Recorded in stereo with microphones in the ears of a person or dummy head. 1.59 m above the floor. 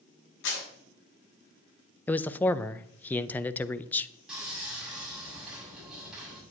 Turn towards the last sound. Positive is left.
turn(degrees=-5)  # may be behind; listen again after turning